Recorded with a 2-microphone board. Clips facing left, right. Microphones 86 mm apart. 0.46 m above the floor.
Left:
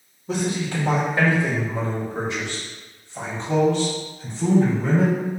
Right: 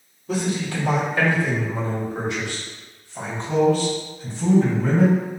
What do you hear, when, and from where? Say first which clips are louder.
0.3 s a man speaking: even; 30° left (ahead or behind), 1.5 m; by 5.2 s 25° left (ahead or behind), 4 m